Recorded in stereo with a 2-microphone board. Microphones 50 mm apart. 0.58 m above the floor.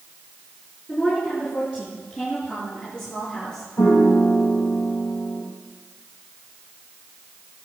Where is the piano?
55° left (ahead or behind), 7 m.